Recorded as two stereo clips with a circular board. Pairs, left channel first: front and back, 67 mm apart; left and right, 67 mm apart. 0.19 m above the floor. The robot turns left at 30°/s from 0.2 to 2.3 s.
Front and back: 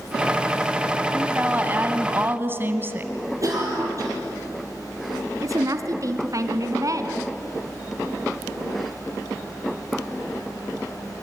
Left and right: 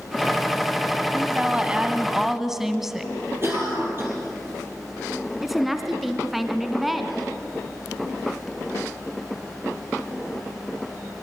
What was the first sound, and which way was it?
A woman speaking, 135° right.